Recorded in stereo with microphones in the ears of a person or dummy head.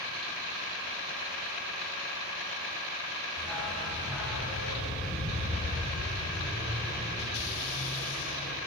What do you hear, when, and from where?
3.4 s a dog barking: 5° left (ahead or behind), 2.5 m; by 8.5 s 15° right (ahead or behind), 8.5 m